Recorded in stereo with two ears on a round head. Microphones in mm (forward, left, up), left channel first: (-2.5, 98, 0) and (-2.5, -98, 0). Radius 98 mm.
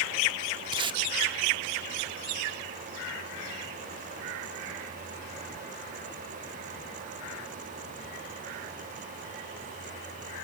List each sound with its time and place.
0.7 s tape being pulled: 20° right (ahead or behind), 0.6 m